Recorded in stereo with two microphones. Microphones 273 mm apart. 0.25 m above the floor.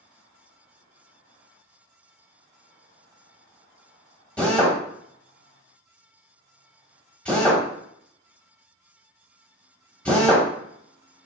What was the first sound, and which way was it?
A drill, 5° left (ahead or behind).